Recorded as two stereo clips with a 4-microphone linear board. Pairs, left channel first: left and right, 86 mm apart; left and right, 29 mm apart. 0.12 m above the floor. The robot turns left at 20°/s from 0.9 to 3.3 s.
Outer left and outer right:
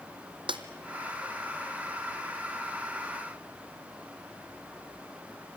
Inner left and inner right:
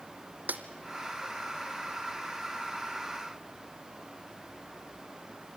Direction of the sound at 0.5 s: 75° right (ahead or behind).